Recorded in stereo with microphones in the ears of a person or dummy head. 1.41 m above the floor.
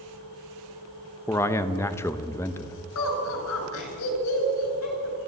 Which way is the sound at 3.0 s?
85° left.